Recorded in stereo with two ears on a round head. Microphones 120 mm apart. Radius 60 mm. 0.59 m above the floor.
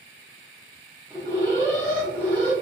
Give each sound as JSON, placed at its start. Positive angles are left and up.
{"t": 1.1, "sound": "an alarm", "side_deg": 15, "distance_m": 1.1}